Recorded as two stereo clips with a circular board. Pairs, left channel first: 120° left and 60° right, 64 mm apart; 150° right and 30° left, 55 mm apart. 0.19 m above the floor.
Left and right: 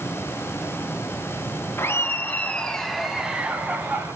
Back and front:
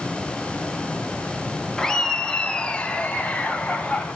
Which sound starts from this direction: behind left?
Laughter, at 1.8 s.